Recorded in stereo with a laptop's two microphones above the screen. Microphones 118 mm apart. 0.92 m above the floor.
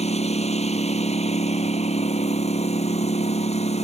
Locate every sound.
0.0 s a lawn mower: 70° left (ahead or behind)